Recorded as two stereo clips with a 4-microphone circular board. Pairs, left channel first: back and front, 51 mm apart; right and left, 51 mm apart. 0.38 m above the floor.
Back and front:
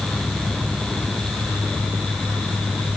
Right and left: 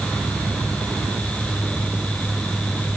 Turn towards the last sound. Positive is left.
No sound to turn to.